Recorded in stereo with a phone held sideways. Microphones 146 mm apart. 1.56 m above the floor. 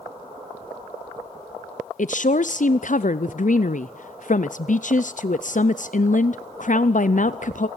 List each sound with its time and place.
2.0 s a woman speaking: 60° left (ahead or behind), 0.5 m